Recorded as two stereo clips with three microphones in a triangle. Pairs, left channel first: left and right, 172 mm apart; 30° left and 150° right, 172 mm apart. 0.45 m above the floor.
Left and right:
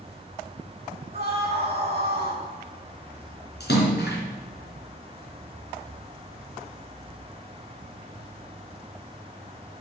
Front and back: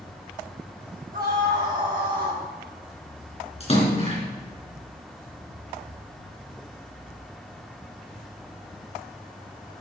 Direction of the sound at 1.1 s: 130° right.